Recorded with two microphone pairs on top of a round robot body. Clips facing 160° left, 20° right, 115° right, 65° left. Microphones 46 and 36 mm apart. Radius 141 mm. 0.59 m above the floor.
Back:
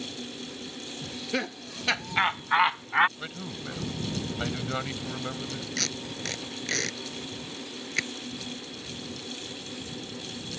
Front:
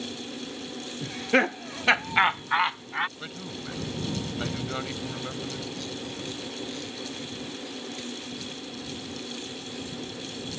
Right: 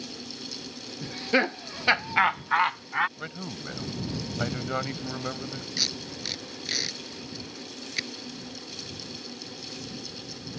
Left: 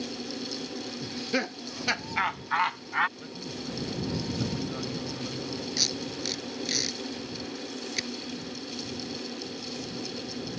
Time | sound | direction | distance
1.0 | laughter | 55° right | ?
3.2 | a man speaking | 115° right | ?
5.8 | tape being pulled | 165° left | ?